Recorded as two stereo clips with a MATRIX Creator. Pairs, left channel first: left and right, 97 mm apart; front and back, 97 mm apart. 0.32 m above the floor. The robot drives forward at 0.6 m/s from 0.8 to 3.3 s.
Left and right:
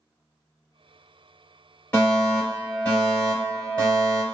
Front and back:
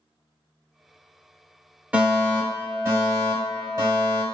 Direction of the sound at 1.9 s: 130° left.